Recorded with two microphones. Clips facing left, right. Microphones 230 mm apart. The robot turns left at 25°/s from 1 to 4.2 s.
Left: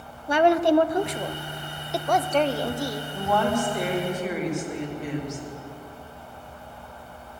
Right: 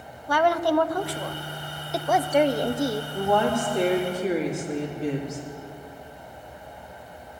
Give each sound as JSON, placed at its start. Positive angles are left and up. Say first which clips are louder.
{"t": 0.3, "sound": "a woman speaking", "louder": "left 4 dB", "azimuth_deg": 25, "distance_m": 0.5}
{"t": 3.1, "sound": "a woman speaking", "louder": "even", "side_deg": -10, "distance_m": 2.5}